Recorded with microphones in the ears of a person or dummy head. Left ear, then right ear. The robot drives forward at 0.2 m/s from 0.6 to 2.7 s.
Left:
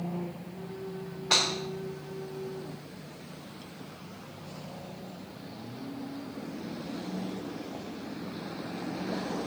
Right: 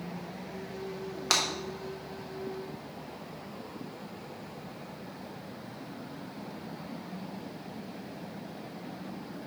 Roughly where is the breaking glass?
Right.